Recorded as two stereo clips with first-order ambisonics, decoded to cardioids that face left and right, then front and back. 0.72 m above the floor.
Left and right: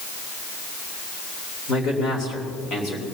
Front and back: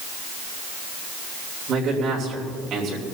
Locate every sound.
1.7 s a man speaking: 135° left, 3 m